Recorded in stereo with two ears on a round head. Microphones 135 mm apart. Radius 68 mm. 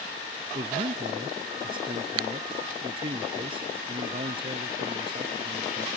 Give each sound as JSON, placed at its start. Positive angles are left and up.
{"t": 0.5, "sound": "a man speaking", "side_deg": -35}